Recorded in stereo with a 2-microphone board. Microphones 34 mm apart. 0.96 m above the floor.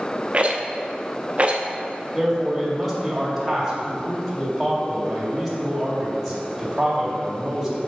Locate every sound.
0.3 s a rattle: 40° right (ahead or behind), 0.7 m
2.1 s a man speaking: centre (ahead or behind), 2 m